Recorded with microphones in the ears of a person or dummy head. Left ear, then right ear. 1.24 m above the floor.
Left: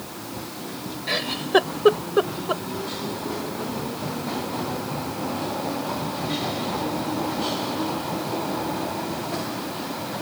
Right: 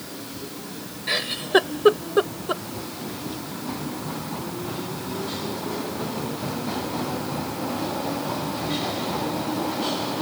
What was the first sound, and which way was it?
A giggle, 5° left (ahead or behind).